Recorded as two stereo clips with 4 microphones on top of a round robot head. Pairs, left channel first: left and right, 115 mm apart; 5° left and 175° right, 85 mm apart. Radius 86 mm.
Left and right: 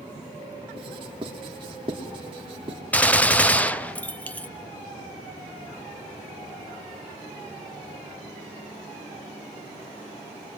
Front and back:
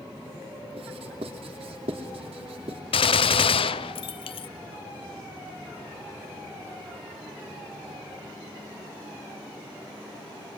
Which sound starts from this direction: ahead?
A gunshot, at 2.9 s.